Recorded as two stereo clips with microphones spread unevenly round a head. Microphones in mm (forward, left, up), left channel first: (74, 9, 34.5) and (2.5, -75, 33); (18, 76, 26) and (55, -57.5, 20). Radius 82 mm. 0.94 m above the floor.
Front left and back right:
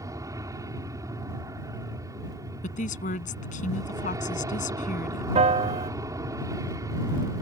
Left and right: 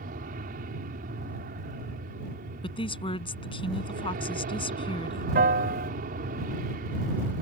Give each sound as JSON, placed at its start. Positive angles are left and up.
{"t": 0.0, "sound": "an aircraft", "azimuth_deg": -75}
{"t": 2.6, "sound": "a woman speaking", "azimuth_deg": 55}
{"t": 5.3, "sound": "a piano", "azimuth_deg": -105}